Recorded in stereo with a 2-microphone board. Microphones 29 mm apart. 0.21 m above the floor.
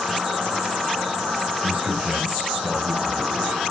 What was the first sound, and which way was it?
An insect, 80° right.